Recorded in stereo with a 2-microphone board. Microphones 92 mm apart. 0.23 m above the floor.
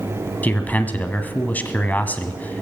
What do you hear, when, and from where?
0.4 s a man speaking: 20° left (ahead or behind), 1.3 m